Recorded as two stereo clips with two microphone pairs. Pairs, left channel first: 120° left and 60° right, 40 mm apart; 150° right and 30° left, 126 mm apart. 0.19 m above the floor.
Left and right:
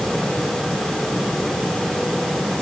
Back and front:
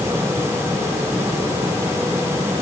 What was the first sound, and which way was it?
Only background noise.